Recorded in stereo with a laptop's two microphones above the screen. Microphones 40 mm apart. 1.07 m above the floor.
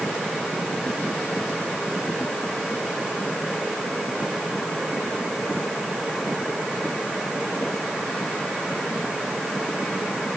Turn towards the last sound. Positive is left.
No sound to turn to.